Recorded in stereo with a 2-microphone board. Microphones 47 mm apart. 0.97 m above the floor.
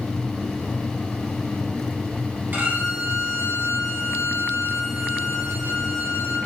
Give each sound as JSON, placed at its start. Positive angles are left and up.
{"t": 2.5, "sound": "a violin", "side_deg": -45, "distance_m": 1.1}